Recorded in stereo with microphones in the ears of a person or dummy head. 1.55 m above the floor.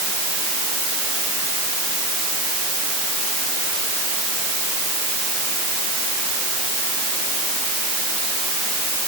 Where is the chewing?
No chewing in this recording.